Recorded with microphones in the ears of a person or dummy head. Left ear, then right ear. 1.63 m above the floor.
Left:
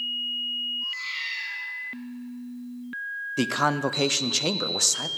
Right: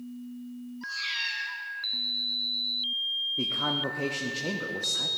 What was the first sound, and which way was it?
A cat meowing, 50° right (ahead or behind).